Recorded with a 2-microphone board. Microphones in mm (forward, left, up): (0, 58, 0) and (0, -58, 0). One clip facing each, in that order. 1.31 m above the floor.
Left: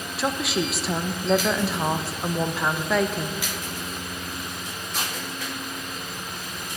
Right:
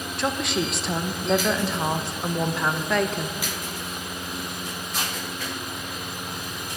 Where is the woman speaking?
Centre (ahead or behind), 0.9 m.